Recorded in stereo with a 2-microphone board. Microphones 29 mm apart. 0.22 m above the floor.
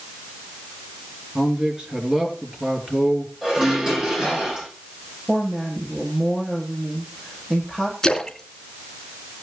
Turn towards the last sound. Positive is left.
turn(degrees=20)  # may be behind; listen again after turning